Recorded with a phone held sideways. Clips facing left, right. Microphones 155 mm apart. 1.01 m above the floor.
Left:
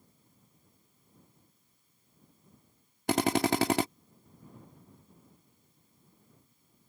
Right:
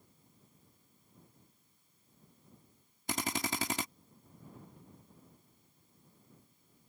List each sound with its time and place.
3.1 s a drill: 70° left (ahead or behind)